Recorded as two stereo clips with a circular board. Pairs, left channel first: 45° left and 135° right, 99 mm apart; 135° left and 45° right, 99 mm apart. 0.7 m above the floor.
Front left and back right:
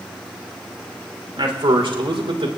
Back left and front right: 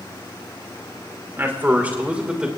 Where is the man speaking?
110° right, 2.5 m; by 2.5 s 125° right, 2.5 m.